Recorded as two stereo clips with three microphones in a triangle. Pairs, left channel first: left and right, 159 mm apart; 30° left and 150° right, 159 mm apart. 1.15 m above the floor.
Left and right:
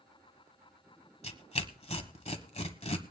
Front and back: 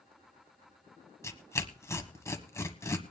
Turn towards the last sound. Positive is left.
turn(degrees=95)